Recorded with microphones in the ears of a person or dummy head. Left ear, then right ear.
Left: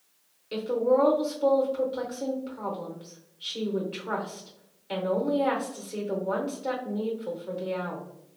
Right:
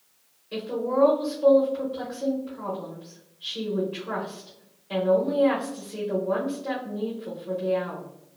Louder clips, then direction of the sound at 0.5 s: Left 3 dB; 70° left (ahead or behind).